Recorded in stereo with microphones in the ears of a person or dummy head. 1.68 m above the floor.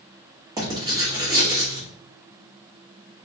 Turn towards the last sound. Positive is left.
turn(degrees=-20)  # may be behind; listen again after turning